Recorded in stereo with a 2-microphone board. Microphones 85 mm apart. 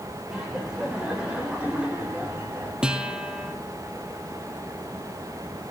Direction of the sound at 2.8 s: 10° right (ahead or behind).